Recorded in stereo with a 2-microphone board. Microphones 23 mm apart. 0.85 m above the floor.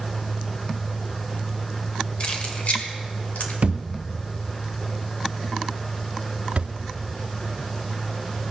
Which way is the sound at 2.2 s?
50° left (ahead or behind).